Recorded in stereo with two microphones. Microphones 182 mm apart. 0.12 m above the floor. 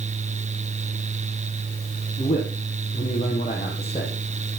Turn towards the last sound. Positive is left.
turn(degrees=30)  # may be behind; listen again after turning